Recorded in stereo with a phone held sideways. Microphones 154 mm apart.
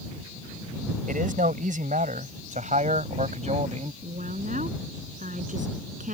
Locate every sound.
1.1 s a man speaking: 70° right (ahead or behind); by 3.9 s 50° right (ahead or behind)
4.0 s a woman speaking: 60° right (ahead or behind)